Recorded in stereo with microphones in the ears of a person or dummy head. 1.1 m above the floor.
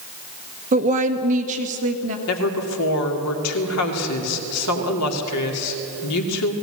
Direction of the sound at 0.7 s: 35° right (ahead or behind).